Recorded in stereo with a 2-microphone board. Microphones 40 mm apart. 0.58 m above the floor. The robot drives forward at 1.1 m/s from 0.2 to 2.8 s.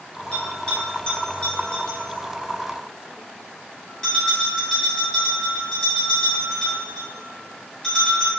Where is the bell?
25° left (ahead or behind), 3.5 m; by 8.3 s 15° left (ahead or behind), 6 m.